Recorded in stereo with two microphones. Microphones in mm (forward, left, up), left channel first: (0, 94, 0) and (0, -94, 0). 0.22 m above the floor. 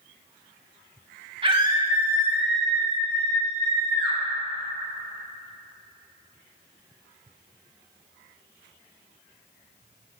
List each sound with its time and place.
1.4 s a scream: 30° right (ahead or behind), 1.0 m; by 4.2 s 20° left (ahead or behind), 1.8 m